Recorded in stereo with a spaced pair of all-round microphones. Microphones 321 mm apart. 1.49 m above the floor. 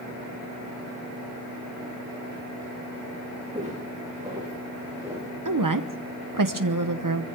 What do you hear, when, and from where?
3.5 s footsteps: 15° right (ahead or behind), 9 m; by 5.3 s 10° right (ahead or behind), 11 m
5.5 s a woman speaking: 80° right, 0.9 m